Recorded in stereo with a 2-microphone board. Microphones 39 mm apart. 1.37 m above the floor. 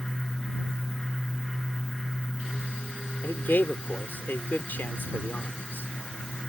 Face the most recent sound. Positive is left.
turn(degrees=55)  # may be behind; listen again after turning